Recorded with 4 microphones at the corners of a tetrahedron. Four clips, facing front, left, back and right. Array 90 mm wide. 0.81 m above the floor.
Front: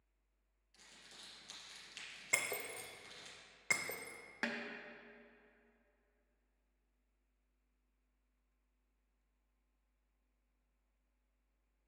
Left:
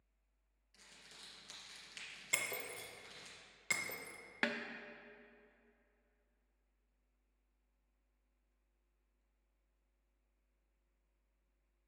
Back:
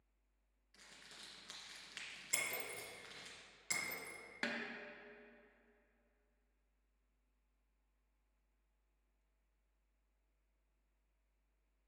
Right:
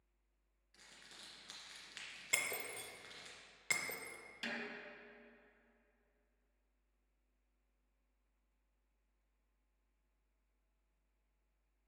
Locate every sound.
0.7 s crumpling: 140° right, 1.8 m
2.3 s breaking glass: straight ahead, 0.6 m
4.4 s a snare drum: 75° left, 0.6 m